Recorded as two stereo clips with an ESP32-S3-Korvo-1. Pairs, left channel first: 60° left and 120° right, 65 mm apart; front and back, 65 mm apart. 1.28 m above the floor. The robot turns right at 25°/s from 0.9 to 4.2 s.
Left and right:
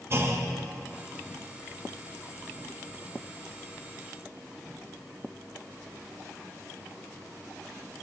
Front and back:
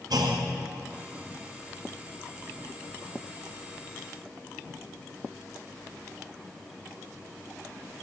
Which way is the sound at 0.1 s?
170° right.